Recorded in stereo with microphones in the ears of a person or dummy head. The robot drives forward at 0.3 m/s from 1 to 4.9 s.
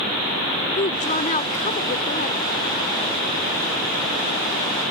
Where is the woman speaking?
40° left (ahead or behind); by 2.4 s 45° left (ahead or behind).